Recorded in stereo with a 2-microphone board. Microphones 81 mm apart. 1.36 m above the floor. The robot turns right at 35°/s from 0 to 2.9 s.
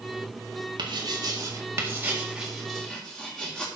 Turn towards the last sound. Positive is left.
turn(degrees=10)  # may be behind; listen again after turning